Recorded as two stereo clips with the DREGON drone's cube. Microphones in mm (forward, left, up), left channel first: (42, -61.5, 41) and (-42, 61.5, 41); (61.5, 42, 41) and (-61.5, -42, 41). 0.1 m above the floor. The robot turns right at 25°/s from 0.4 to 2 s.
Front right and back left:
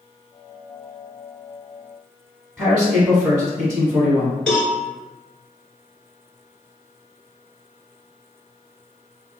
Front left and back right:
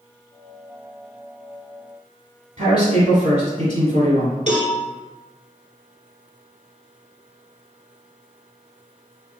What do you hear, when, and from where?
2.6 s a man speaking: 145° right, 1.3 m
4.5 s a cowbell: 140° right, 1.2 m